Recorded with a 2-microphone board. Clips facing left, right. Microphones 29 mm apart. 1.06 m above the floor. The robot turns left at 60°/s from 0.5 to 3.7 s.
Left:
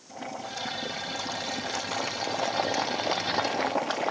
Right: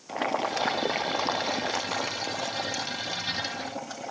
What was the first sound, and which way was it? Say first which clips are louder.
Boiling: right 9 dB; 85° right.